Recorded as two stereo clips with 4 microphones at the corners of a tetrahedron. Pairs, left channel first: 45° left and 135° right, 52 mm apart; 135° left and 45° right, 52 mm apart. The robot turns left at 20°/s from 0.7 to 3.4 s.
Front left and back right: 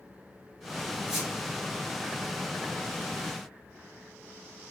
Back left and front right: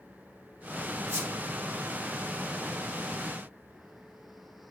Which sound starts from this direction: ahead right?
A squeak, at 1.1 s.